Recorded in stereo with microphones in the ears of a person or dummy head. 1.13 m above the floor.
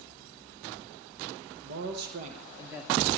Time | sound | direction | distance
1.6 | a man speaking | 75° right (ahead or behind) | 1.2 m